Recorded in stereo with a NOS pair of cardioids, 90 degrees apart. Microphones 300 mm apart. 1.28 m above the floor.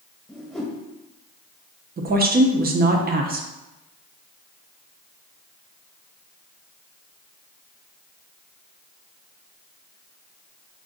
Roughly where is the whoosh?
Ahead.